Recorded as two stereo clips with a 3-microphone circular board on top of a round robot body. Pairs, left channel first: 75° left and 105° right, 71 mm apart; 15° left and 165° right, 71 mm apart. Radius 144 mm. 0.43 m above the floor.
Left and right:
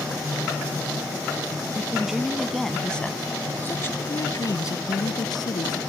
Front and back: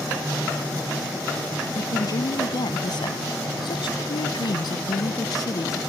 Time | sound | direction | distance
1.8 | a woman speaking | 25° right | ?